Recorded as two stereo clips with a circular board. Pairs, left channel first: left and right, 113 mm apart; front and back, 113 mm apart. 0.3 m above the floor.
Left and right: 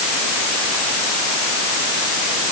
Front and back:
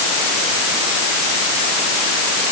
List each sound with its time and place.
Only background noise.